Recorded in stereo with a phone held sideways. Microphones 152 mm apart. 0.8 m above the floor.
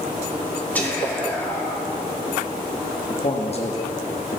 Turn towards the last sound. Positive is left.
turn(degrees=40)  # may be behind; listen again after turning